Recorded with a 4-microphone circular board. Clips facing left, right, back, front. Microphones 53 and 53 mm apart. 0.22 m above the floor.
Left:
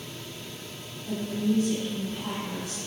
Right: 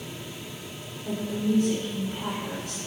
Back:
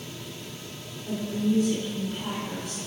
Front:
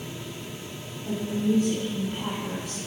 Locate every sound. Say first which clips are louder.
1.1 s a woman speaking: even, front 1 dB; 40° right, 1.8 m